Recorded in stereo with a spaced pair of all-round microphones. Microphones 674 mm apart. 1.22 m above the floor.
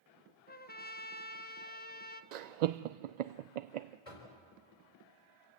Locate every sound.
0.5 s a trumpet: 15° left (ahead or behind), 1.0 m
2.3 s laughter: 80° right, 0.5 m
4.0 s knocking: 65° left (ahead or behind), 4 m